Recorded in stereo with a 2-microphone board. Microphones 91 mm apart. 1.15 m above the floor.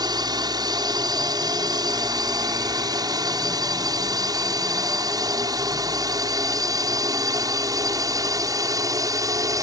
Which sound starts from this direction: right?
A drone, at 0.0 s.